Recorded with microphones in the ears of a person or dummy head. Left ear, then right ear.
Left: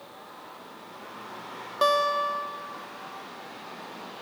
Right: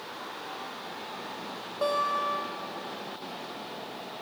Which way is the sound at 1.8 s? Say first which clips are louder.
Left 4 dB; 50° left (ahead or behind).